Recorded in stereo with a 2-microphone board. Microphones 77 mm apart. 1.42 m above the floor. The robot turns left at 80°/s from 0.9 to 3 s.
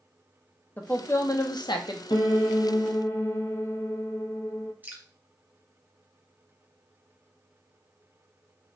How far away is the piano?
About 0.5 m.